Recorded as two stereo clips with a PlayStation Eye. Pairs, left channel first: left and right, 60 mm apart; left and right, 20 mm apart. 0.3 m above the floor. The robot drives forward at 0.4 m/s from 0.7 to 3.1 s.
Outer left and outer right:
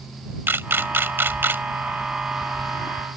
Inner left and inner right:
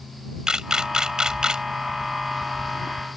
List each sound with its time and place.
0.5 s a camera shutter: 40° right (ahead or behind)